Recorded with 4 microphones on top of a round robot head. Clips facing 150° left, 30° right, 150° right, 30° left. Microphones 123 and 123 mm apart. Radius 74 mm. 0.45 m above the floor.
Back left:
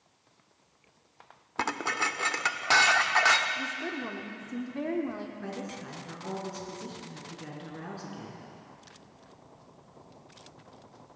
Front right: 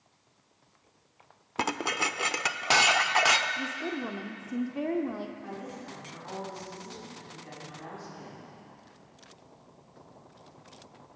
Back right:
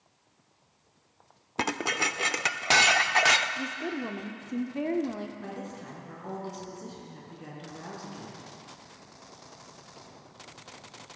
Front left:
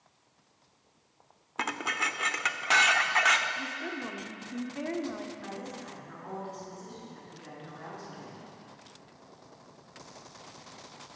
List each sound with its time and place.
1.6 s dishes clattering: 105° right, 0.6 m
3.6 s a woman speaking: 105° right, 0.9 m
5.4 s a woman speaking: 155° left, 5 m